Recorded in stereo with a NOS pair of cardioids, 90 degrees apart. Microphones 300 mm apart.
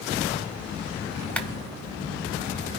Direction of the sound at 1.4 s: 5° left.